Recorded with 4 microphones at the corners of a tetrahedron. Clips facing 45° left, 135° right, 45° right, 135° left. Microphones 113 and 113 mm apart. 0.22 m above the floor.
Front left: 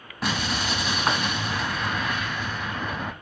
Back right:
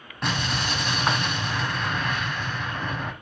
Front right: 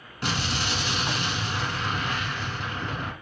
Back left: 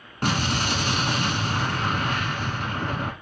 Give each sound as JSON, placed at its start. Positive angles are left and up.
{"t": 0.2, "sound": "an explosion", "azimuth_deg": 130, "distance_m": 0.8}